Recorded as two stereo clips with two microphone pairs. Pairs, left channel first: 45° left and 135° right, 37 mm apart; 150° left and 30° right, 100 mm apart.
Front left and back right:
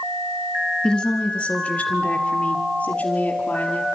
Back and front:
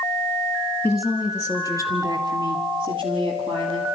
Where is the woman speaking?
85° left, 1.6 m; by 3.9 s straight ahead, 4.5 m.